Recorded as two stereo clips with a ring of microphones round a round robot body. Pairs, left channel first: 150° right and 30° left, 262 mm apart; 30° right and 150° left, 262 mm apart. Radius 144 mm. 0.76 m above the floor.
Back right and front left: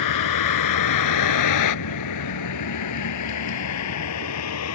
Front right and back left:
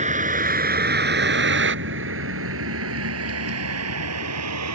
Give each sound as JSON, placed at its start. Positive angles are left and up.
{"t": 0.0, "sound": "a vehicle", "azimuth_deg": -145}